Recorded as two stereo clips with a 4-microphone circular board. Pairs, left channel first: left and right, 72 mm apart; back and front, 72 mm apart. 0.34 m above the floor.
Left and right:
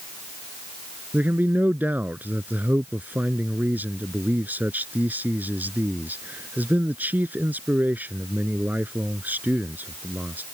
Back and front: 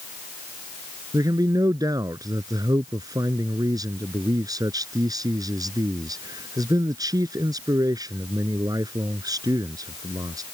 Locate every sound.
1.1 s a man speaking: 25° right